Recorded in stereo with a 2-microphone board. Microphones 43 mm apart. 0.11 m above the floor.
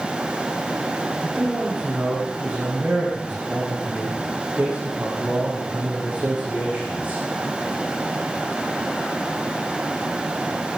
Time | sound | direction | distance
1.2 | a man speaking | 30° right (ahead or behind) | 7 m